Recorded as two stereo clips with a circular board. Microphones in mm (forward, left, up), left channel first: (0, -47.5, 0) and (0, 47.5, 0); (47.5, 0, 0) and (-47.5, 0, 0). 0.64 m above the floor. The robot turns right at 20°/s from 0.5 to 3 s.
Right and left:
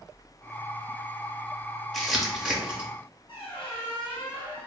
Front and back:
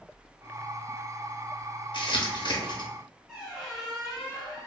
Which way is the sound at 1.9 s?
Straight ahead.